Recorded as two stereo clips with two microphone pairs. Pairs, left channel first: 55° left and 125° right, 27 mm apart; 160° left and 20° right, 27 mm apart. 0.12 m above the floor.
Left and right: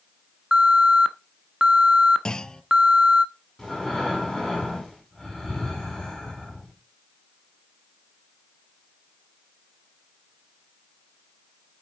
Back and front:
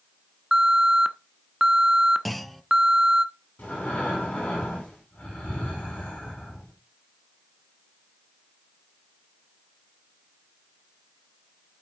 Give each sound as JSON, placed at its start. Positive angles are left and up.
{"t": 0.5, "sound": "an alarm", "azimuth_deg": -85, "distance_m": 0.8}
{"t": 2.2, "sound": "a clunk", "azimuth_deg": 75, "distance_m": 0.6}
{"t": 3.6, "sound": "breathing", "azimuth_deg": 130, "distance_m": 7.0}